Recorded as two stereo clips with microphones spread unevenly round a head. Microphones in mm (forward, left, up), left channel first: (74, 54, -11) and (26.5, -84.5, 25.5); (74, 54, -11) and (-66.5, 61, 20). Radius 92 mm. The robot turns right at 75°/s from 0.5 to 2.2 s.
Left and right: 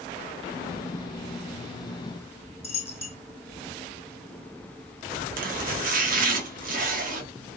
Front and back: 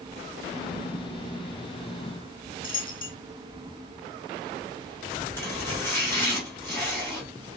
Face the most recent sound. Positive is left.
turn(degrees=-85)